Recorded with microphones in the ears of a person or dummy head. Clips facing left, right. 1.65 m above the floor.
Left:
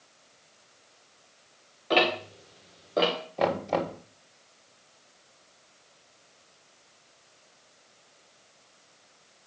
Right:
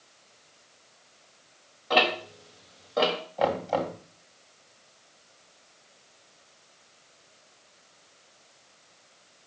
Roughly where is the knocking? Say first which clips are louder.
Even; left.